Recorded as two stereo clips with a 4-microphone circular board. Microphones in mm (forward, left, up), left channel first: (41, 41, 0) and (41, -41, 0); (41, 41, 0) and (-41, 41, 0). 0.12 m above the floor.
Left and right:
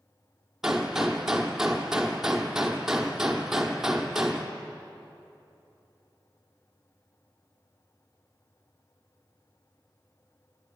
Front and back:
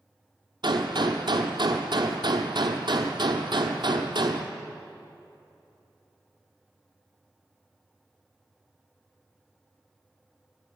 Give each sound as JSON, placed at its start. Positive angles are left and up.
{"t": 0.6, "sound": "a gunshot", "azimuth_deg": -175, "distance_m": 1.0}